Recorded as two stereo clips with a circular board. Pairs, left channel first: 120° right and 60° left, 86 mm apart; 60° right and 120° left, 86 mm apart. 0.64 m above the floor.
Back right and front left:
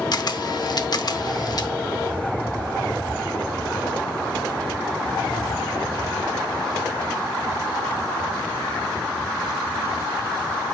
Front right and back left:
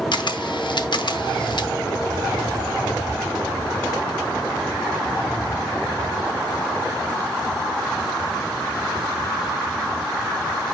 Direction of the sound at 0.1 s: 85° right.